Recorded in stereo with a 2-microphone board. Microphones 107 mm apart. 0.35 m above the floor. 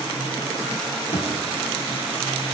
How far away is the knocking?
About 2.5 m.